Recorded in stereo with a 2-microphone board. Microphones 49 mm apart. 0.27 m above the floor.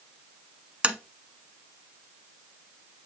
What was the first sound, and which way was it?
Tapping, 20° right (ahead or behind).